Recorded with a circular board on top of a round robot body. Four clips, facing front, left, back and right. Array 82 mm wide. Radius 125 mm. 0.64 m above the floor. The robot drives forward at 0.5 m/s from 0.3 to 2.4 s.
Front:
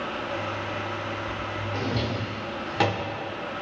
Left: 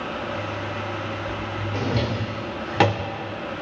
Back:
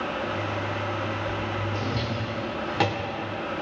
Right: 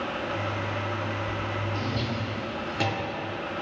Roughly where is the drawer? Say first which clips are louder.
Left 5 dB, front 1 dB; left.